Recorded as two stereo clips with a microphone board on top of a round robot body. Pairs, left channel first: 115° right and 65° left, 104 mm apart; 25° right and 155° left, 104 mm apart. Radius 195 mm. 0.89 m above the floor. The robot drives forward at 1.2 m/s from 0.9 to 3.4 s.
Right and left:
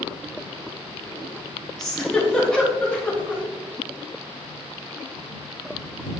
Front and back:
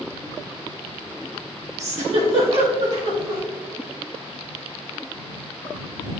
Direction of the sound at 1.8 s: 160° left.